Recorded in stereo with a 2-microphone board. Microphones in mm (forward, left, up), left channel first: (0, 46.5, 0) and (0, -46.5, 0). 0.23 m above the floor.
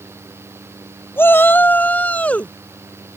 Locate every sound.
1.2 s a shout: 25° left (ahead or behind); by 2.5 s 15° left (ahead or behind)